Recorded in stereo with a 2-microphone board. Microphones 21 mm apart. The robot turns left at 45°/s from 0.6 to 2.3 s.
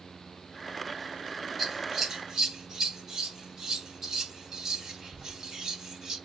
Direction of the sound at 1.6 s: 5° left (ahead or behind).